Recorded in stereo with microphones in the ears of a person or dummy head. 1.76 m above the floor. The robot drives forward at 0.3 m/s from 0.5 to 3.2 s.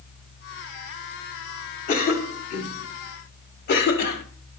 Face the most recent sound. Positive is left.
turn(degrees=50)  # may be behind; listen again after turning